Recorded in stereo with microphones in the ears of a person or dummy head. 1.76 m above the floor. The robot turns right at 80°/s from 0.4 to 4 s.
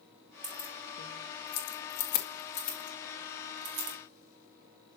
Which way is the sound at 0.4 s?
5° right (ahead or behind).